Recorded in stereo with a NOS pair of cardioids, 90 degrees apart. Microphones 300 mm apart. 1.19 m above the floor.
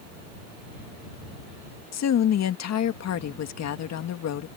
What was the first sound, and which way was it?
A woman speaking, 60° left.